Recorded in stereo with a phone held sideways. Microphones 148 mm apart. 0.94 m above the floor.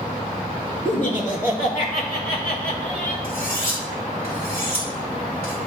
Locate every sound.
0.8 s laughter: 55° left (ahead or behind), 2 m; by 3.1 s 85° left, 3 m
3.2 s cutlery clinking: 85° left, 3.5 m